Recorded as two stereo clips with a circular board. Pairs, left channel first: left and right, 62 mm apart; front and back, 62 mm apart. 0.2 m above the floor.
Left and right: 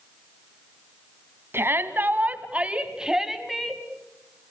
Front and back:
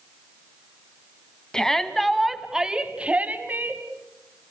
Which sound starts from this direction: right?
A shout, at 1.5 s.